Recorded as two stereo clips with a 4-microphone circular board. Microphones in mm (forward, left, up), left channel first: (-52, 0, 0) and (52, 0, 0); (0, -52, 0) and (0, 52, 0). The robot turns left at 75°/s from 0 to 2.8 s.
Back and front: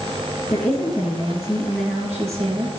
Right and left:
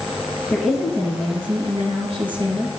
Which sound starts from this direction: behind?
A woman speaking, at 0.5 s.